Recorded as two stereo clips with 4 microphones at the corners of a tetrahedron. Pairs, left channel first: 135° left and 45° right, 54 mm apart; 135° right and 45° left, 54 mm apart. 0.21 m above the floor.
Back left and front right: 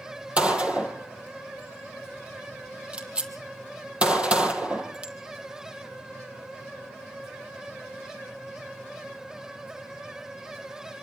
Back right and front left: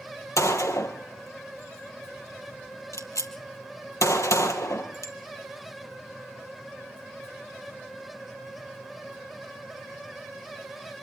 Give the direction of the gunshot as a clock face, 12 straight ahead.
4 o'clock.